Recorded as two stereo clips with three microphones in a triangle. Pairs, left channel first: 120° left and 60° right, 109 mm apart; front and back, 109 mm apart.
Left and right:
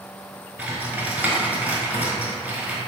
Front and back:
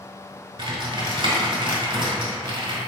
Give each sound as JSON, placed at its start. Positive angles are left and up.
{"t": 0.6, "sound": "typing on a keyboard", "azimuth_deg": -135, "distance_m": 0.8}